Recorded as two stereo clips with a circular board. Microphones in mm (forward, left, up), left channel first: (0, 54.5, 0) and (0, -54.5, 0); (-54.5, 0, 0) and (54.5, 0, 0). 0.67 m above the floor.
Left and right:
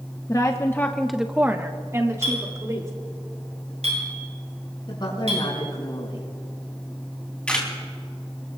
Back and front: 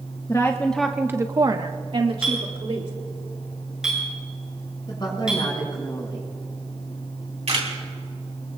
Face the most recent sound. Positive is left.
turn(degrees=10)